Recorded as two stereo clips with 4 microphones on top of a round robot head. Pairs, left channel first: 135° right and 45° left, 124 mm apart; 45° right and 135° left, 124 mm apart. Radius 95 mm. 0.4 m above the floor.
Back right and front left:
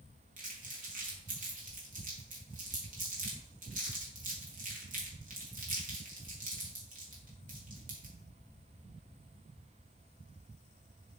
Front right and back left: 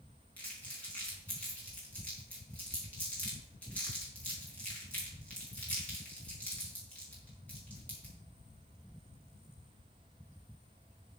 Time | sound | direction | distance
0.4 | crumpling | 35° left | 5 m